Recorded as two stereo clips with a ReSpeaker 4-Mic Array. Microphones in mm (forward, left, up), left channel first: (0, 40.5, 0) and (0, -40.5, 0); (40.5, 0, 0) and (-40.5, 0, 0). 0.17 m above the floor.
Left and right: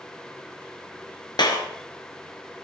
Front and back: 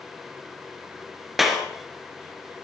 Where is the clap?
90° left, 2 m.